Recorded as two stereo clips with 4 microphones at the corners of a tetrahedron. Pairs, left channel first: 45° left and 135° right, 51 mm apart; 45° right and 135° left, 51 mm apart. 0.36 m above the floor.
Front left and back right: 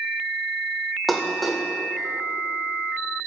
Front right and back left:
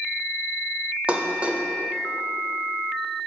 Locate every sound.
1.1 s dishes clattering: 135° left, 0.6 m